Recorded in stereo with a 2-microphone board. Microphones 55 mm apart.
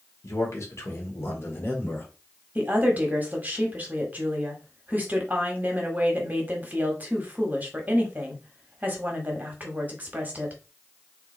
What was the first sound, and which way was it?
A man speaking, 65° left (ahead or behind).